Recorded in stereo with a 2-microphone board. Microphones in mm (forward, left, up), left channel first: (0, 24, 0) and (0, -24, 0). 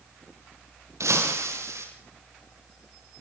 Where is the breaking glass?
85° right, 7 m.